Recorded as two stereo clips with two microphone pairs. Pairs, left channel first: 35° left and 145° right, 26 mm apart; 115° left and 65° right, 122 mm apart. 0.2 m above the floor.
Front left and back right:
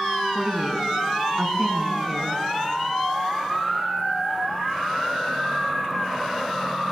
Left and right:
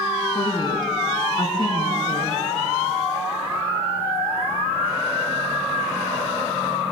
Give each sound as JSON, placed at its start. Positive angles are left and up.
{"t": 0.3, "sound": "a woman speaking", "azimuth_deg": 150, "distance_m": 2.0}